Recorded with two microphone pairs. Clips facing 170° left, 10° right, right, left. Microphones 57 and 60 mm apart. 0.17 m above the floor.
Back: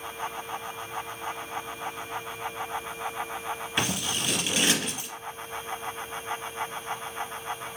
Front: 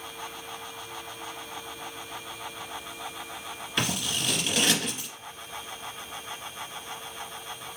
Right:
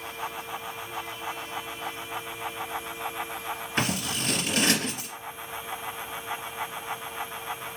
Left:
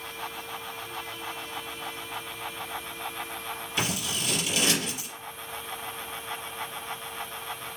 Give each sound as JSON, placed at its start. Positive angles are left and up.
{"t": 3.8, "sound": "scissors", "azimuth_deg": -110, "distance_m": 2.0}